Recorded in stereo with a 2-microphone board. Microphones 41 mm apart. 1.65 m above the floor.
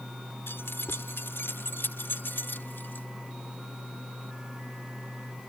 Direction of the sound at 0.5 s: 85° left.